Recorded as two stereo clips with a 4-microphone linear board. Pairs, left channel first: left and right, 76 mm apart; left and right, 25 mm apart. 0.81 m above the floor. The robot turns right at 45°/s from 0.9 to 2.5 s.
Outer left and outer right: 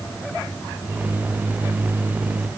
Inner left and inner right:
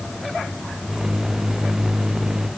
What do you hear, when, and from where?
Only background noise.